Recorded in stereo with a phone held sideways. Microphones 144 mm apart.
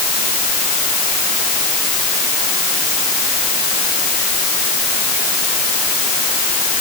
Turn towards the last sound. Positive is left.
No sound to turn to.